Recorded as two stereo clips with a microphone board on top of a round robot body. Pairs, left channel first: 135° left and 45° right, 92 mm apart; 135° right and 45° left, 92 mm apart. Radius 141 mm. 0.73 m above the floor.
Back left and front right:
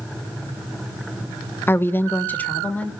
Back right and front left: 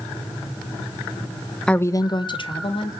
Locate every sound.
1.7 s a woman speaking: 150° left, 0.6 m; by 2.9 s 150° right, 1.9 m